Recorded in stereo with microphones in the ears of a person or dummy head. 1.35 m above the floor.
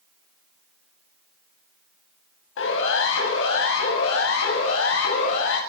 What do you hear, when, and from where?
2.6 s a siren: 80° left, 8.5 m